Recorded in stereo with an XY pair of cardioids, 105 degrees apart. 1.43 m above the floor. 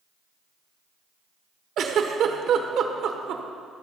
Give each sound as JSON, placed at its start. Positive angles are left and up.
{"t": 1.8, "sound": "a giggle", "azimuth_deg": -65, "distance_m": 1.1}